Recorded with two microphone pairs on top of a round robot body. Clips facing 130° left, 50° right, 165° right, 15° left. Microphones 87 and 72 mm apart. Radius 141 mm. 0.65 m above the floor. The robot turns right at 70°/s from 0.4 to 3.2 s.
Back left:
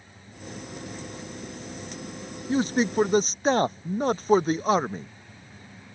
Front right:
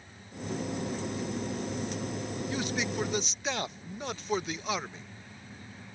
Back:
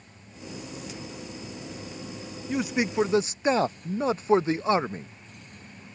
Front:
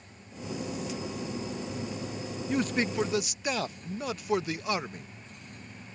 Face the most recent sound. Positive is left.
turn(degrees=145)